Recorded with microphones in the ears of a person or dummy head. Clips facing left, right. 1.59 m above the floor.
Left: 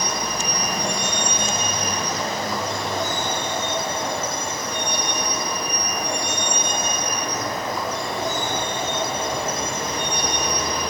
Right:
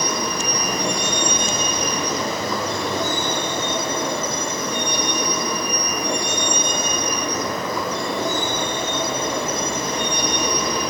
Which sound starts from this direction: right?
A vehicle, at 0.0 s.